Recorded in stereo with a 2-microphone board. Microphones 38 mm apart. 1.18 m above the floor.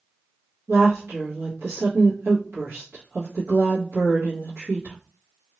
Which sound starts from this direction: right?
A woman speaking, at 0.7 s.